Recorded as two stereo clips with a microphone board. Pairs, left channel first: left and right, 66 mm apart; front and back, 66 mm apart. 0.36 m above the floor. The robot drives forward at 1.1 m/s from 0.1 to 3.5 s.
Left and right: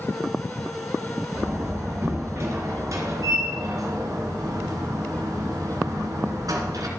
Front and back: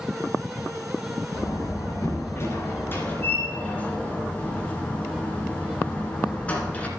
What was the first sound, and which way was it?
A door slam, 35° right.